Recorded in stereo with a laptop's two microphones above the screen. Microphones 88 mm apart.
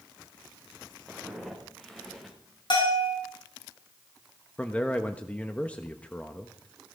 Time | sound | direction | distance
1.1 | footsteps | centre (ahead or behind) | 6 m
2.7 | a bell | 60° left (ahead or behind) | 5.5 m
4.6 | a man speaking | 15° left (ahead or behind) | 1.2 m